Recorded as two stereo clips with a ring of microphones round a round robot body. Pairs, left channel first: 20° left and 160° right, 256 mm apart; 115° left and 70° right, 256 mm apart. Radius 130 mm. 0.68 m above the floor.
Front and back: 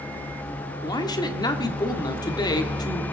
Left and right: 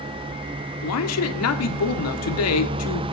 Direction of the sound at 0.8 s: 95° left.